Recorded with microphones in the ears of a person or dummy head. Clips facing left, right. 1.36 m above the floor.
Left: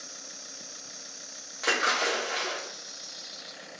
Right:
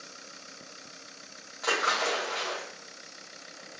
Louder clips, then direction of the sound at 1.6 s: Left 1 dB; 35° left (ahead or behind).